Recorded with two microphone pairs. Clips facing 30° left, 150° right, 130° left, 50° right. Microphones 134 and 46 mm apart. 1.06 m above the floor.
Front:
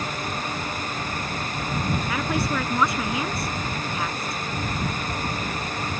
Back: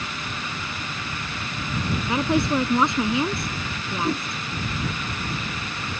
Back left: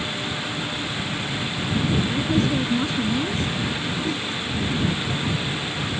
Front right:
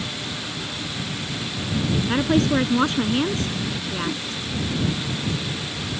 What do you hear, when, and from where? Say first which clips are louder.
2.1 s a woman speaking: back 8 dB, front right 2 dB; 80° right
4.0 s a whoosh: back 6 dB, back left 2 dB; 135° right